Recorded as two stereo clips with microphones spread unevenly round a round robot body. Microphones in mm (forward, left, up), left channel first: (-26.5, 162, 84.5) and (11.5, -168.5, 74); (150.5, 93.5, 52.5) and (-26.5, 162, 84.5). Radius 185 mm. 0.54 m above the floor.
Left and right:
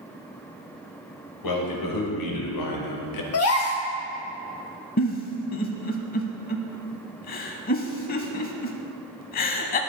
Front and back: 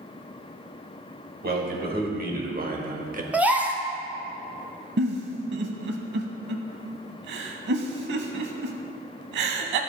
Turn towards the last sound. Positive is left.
turn(degrees=160)